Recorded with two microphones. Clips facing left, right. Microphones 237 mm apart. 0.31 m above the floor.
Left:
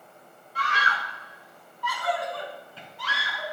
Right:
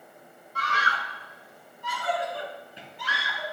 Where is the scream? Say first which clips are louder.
Left 1 dB; 40° right (ahead or behind), 1.7 m; by 3.5 s 10° right (ahead or behind), 5 m.